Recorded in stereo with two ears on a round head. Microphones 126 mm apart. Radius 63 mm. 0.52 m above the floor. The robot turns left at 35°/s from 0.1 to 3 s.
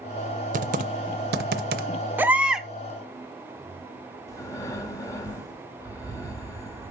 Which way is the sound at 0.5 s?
55° right (ahead or behind).